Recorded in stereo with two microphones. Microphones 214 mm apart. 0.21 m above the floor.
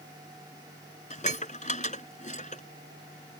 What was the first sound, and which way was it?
Dishes clattering, 35° left (ahead or behind).